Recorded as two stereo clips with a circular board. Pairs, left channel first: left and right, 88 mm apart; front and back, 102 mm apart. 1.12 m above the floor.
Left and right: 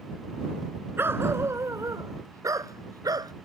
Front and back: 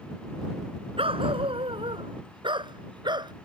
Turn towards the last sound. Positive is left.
turn(degrees=-135)